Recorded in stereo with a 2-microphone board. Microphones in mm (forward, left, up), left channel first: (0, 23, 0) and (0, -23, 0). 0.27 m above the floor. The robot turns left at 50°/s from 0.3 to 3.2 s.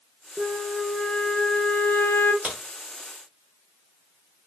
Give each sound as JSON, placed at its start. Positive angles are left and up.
{"t": 0.4, "sound": "a flute", "azimuth_deg": -155, "distance_m": 0.5}
{"t": 2.4, "sound": "a crack", "side_deg": -25, "distance_m": 1.2}